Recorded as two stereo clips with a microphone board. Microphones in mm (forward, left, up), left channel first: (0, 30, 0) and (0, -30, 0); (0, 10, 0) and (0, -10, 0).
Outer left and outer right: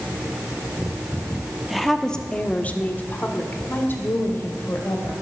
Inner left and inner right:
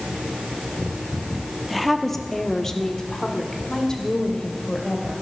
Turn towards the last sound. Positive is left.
turn(degrees=45)  # may be behind; listen again after turning